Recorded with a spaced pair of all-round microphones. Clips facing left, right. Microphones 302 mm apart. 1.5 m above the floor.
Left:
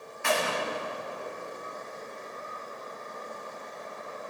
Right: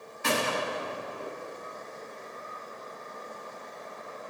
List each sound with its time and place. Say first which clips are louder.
0.2 s a gunshot: even; 45° right (ahead or behind), 4 m